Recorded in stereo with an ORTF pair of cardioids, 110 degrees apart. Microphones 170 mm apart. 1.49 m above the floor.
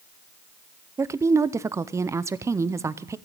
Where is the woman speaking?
15° right, 0.5 m.